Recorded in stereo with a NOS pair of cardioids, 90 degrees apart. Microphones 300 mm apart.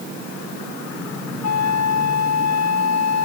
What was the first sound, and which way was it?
A flute, 60° left.